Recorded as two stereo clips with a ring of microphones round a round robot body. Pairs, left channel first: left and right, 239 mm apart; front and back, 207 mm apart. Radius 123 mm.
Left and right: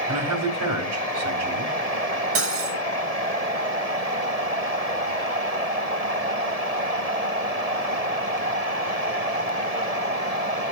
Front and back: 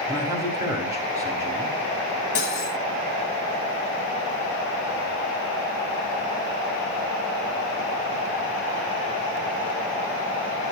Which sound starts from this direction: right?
A man speaking, at 0.1 s.